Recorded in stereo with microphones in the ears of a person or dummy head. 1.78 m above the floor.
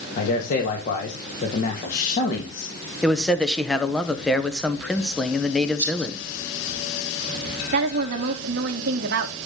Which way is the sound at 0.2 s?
50° left (ahead or behind).